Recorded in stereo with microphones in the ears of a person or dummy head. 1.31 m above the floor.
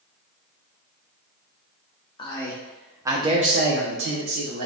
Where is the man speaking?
25° left (ahead or behind), 0.8 m; by 4.7 s 85° right, 0.9 m.